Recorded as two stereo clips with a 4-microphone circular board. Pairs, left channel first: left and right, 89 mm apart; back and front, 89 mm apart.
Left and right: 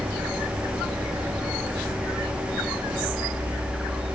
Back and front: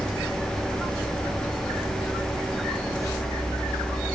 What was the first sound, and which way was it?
Only background noise.